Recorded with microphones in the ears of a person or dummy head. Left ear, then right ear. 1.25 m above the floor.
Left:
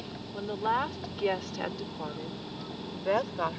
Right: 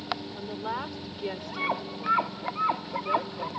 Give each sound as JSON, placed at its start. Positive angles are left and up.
{"t": 0.3, "sound": "a woman speaking", "side_deg": 5}